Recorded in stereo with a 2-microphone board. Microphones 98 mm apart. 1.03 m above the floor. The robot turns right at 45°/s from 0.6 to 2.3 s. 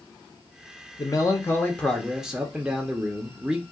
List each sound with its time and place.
1.0 s a man speaking: 135° left, 0.7 m; by 3.6 s 170° right, 0.7 m